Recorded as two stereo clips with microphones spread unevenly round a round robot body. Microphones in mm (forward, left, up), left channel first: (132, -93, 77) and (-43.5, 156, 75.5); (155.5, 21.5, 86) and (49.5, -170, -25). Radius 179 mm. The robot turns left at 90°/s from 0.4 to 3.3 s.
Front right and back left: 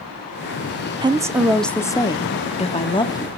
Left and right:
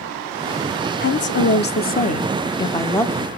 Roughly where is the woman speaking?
Left.